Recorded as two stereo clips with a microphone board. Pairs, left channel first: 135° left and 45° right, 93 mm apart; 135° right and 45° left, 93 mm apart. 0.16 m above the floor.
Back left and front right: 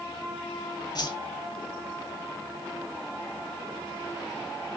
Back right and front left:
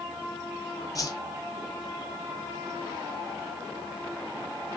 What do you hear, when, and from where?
0.9 s a whoosh: 175° left, 1.0 m